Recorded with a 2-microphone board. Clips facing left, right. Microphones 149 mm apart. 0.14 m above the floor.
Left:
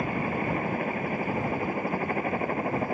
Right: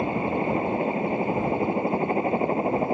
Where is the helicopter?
25° right (ahead or behind).